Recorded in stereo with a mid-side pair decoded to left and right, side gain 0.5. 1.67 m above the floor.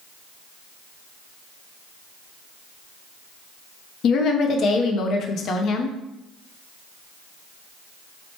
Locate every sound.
4.0 s a woman speaking: 60° left, 0.5 m